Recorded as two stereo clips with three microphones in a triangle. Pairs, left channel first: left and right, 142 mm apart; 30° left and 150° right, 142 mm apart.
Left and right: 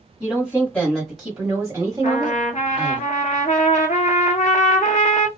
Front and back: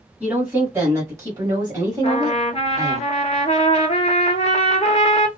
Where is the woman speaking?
145° left, 1.3 m; by 3.0 s 100° right, 1.4 m.